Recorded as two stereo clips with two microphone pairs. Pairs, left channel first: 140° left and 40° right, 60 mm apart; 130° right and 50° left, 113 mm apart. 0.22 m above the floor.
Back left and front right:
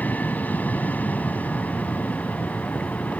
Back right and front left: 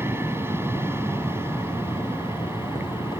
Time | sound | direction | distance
0.0 | an aircraft | 105° left | ?